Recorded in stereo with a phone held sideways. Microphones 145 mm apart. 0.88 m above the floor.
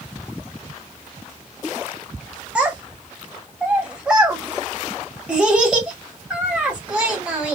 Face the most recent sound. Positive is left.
turn(degrees=-10)  # may be behind; listen again after turning